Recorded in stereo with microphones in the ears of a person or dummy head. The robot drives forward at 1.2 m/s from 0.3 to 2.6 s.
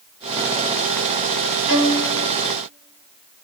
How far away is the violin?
About 3 m.